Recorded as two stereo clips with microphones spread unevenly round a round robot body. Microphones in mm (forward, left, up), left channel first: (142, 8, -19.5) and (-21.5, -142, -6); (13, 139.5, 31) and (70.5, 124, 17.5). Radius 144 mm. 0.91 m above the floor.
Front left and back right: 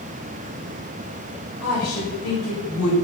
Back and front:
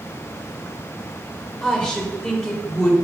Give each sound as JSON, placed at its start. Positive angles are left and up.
{"t": 1.6, "sound": "a woman speaking", "azimuth_deg": 85, "distance_m": 3.0}